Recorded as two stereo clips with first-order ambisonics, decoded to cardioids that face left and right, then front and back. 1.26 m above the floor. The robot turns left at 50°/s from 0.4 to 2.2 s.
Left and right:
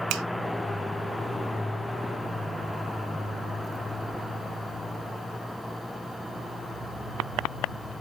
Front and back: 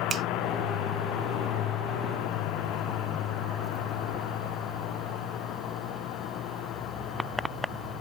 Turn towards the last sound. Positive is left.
turn(degrees=150)